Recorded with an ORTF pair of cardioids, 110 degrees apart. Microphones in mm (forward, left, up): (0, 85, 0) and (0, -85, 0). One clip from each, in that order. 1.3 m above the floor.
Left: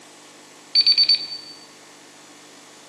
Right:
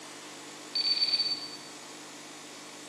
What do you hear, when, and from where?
0.8 s an alarm clock: 70° left, 2.5 m